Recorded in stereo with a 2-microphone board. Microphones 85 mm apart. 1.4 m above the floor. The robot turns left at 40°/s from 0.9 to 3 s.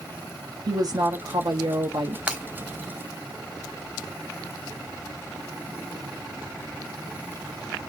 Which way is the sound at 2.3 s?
15° right (ahead or behind).